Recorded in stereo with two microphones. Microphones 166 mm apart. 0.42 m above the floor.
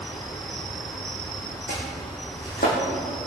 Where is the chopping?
65° left (ahead or behind), 5.5 m.